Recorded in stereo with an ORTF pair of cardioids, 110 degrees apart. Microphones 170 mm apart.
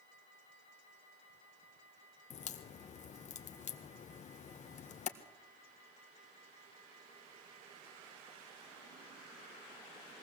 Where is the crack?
45° left, 1.6 m.